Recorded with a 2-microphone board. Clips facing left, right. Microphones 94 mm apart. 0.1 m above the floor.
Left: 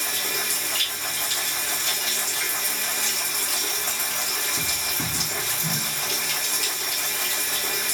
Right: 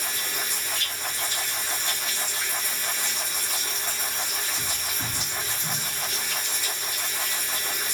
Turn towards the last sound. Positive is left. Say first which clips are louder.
# left 2 dB
turn(degrees=75)  # may be behind; listen again after turning